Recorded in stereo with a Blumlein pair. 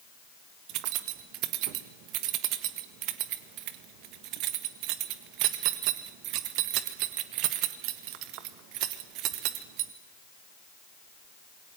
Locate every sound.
0.7 s keys jangling: 40° right, 1.5 m